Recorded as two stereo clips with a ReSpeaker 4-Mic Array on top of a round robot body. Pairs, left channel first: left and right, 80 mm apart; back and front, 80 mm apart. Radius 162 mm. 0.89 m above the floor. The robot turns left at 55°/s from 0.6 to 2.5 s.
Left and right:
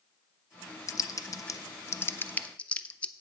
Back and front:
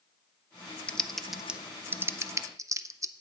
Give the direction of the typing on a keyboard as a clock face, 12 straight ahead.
8 o'clock.